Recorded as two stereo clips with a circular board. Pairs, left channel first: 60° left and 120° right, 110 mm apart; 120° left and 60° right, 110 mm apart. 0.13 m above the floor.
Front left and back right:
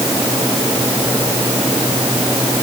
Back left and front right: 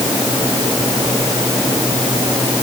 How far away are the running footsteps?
No running footsteps in this recording.